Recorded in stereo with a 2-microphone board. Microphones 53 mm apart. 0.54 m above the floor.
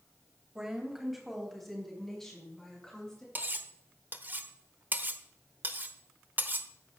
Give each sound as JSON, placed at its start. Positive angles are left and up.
{"t": 0.6, "sound": "a woman speaking", "side_deg": -10, "distance_m": 3.0}
{"t": 3.4, "sound": "cutlery clinking", "side_deg": -35, "distance_m": 0.8}